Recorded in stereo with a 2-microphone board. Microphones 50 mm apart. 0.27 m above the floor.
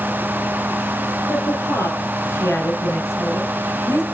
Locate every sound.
1.3 s a woman speaking: 75° left (ahead or behind), 6 m; by 4.0 s 70° left (ahead or behind), 2.5 m